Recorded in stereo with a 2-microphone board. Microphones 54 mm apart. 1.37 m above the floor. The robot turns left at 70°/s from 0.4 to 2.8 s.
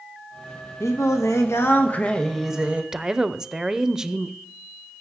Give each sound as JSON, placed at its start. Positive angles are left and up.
{"t": 0.8, "sound": "singing", "azimuth_deg": 115, "distance_m": 1.0}
{"t": 2.9, "sound": "a woman speaking", "side_deg": -15, "distance_m": 0.5}